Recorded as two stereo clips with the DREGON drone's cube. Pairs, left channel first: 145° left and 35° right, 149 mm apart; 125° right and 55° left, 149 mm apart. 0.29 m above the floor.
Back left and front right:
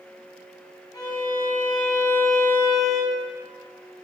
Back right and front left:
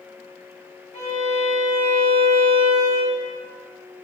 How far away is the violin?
About 0.5 m.